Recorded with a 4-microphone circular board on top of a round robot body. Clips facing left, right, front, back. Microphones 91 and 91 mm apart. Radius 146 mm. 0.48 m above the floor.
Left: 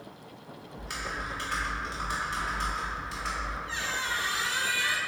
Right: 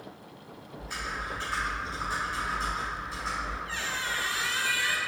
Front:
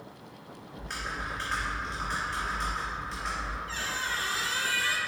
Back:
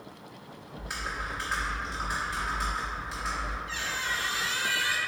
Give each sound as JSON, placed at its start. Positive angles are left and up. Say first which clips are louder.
{"t": 0.8, "sound": "typing on a keyboard", "louder": "even, back 1 dB", "azimuth_deg": 95, "distance_m": 0.8}
{"t": 3.7, "sound": "a squeak", "louder": "left 1 dB, even", "azimuth_deg": 30, "distance_m": 0.7}